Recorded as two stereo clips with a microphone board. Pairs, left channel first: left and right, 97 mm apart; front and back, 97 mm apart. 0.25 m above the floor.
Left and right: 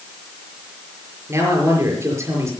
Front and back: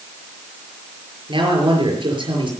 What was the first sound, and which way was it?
A man speaking, 150° right.